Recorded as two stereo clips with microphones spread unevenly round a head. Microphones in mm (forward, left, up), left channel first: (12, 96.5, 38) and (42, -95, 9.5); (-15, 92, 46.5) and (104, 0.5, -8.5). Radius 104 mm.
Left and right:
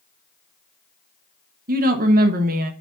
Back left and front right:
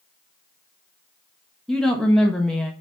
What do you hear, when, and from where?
1.7 s a woman speaking: 125° right, 1.2 m